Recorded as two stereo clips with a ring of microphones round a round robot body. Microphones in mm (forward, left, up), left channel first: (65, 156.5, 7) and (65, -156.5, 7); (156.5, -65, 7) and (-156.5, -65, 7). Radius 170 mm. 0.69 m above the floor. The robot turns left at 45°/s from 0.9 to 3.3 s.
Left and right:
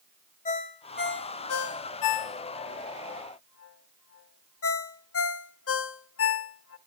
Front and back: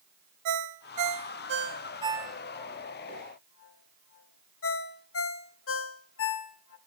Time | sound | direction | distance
0.5 | a ringtone | 155° left | 0.9 m